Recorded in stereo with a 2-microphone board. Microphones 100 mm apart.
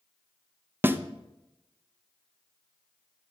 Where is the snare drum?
20° right (ahead or behind), 0.5 m.